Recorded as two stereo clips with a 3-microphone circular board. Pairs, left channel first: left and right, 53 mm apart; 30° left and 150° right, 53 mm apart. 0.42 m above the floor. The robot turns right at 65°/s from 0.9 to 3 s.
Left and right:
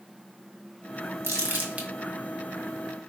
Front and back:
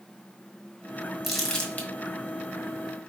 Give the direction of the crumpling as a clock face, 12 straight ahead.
2 o'clock.